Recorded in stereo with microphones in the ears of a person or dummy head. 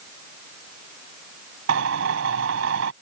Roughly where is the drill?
Right.